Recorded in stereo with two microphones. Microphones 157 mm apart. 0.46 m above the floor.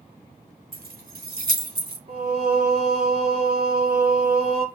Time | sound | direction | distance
0.7 | keys jangling | 65° right (ahead or behind) | 1.1 m
2.1 | singing | 80° right | 2 m